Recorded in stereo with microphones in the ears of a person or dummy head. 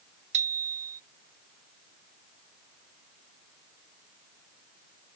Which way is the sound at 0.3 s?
40° right (ahead or behind).